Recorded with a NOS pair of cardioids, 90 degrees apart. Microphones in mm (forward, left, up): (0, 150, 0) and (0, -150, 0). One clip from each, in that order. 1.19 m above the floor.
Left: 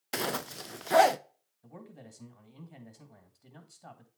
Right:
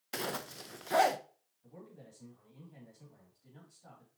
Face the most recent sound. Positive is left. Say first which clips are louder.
# left 3 dB
turn(degrees=70)